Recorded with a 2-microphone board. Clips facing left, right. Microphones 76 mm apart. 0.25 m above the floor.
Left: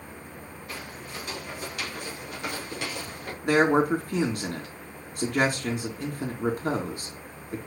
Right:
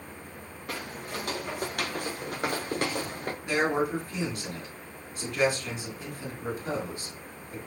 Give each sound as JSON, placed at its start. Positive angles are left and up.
{"t": 0.7, "sound": "footsteps", "side_deg": -70, "distance_m": 3.5}
{"t": 3.4, "sound": "a man speaking", "side_deg": 60, "distance_m": 3.0}